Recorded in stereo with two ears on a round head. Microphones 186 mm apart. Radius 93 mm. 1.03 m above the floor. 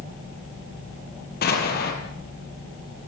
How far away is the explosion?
About 5 m.